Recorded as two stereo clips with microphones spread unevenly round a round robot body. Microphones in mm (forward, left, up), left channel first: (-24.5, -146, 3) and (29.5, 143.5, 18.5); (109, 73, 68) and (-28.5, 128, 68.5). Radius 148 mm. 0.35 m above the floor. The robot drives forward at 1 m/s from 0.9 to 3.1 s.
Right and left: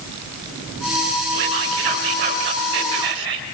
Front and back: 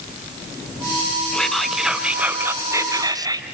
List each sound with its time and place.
1.3 s whispering: 65° left, 3.5 m; by 3.5 s 95° left, 3.5 m